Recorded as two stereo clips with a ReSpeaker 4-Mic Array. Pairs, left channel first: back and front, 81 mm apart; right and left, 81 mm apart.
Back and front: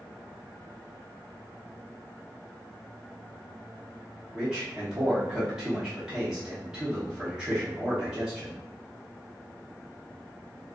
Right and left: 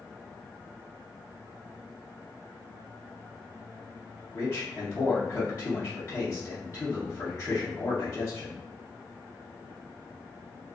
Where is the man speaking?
80° right, 0.8 m.